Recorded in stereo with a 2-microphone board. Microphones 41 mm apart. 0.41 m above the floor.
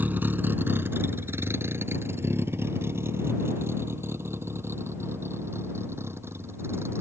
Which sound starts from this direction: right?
A vehicle, at 0.0 s.